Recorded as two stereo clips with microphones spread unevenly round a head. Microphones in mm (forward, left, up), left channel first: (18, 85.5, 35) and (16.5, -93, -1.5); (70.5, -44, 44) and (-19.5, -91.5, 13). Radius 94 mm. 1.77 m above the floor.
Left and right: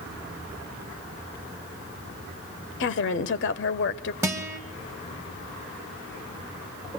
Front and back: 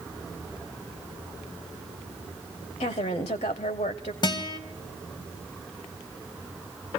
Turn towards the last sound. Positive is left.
turn(degrees=-10)